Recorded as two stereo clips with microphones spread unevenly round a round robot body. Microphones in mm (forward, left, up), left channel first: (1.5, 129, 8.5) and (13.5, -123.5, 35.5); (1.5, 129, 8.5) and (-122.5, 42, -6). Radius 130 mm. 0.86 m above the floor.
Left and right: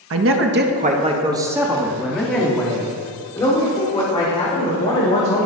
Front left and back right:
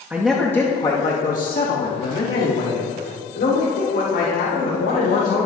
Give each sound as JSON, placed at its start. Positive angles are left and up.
{"t": 0.1, "sound": "a man speaking", "azimuth_deg": -70, "distance_m": 1.0}